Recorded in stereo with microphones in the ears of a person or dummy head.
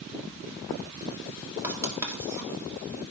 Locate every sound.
1.6 s writing: 20° right (ahead or behind), 2 m